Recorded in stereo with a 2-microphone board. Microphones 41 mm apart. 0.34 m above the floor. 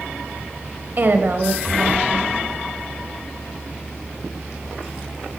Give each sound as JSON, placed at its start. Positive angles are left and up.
{"t": 1.0, "sound": "a woman speaking", "side_deg": -45, "distance_m": 1.2}